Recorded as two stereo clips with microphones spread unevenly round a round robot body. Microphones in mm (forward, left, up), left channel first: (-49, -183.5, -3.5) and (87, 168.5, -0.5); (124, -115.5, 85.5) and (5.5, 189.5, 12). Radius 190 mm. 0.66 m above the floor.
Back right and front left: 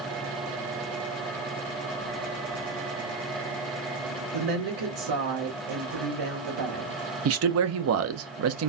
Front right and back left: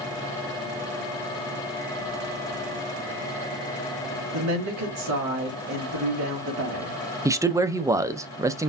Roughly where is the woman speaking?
Left.